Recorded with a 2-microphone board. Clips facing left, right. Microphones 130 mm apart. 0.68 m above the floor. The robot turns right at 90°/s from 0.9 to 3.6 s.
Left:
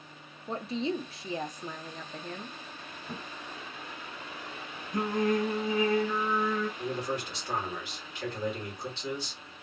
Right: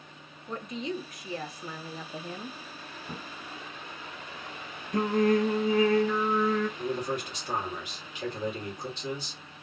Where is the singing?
75° right (ahead or behind), 0.6 m.